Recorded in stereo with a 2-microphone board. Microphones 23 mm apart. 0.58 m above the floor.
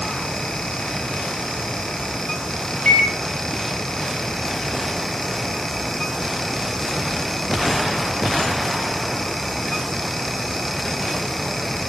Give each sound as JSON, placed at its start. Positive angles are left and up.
{"t": 2.9, "sound": "a microwave", "side_deg": 65, "distance_m": 2.0}